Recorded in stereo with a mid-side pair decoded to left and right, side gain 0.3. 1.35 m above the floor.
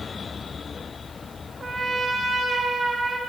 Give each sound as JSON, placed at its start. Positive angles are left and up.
{"t": 1.6, "sound": "a trumpet", "azimuth_deg": -45, "distance_m": 1.2}